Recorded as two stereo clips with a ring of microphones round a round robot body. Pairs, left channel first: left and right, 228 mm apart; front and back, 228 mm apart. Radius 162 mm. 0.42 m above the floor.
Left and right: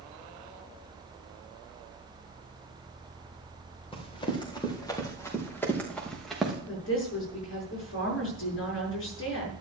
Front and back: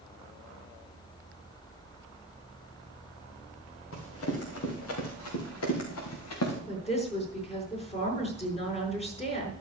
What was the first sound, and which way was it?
Running footsteps, 20° left.